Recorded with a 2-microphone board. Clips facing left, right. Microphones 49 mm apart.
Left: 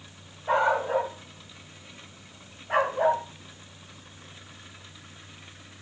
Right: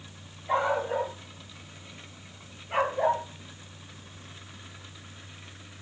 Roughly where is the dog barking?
Left.